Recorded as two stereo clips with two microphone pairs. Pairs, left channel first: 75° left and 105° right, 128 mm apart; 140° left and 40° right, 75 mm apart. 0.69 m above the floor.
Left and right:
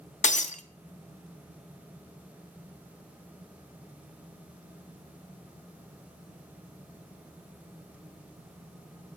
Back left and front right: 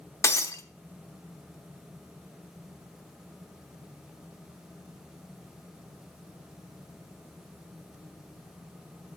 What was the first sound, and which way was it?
Breaking glass, 95° left.